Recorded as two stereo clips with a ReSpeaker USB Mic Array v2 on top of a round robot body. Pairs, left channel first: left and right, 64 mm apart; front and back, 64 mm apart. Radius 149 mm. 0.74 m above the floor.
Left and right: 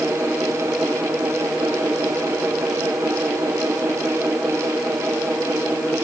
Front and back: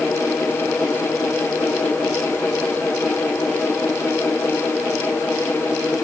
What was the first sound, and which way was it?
Only background noise.